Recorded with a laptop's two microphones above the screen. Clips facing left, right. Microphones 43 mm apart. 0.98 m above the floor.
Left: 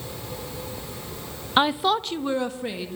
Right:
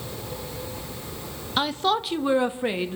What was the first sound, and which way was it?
A woman speaking, 30° left (ahead or behind).